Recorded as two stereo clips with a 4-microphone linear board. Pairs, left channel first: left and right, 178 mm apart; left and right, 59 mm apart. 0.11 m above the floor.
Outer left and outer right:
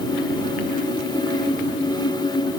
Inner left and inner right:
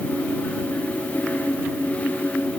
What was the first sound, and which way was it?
Only background noise.